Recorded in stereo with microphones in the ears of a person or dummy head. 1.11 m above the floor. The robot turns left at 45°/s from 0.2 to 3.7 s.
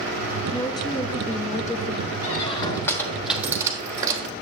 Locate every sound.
0.5 s a woman speaking: 155° left, 0.6 m; by 2.1 s 80° left, 0.6 m
2.2 s a squeak: 40° left (ahead or behind), 1.3 m; by 4.3 s 20° right (ahead or behind), 1.3 m